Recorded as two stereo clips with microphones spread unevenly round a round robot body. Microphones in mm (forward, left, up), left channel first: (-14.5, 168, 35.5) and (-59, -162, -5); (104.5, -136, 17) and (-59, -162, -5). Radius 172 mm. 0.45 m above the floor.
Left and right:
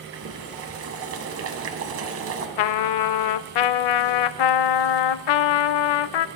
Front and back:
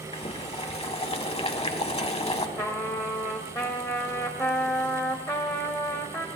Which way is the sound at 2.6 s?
90° left.